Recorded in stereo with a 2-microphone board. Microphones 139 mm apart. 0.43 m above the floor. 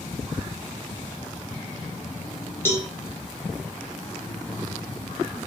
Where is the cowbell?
20° left (ahead or behind), 0.6 m.